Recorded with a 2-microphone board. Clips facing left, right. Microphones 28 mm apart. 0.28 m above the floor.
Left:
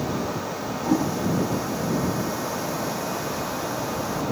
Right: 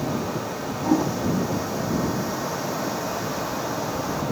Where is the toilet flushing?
10° right (ahead or behind).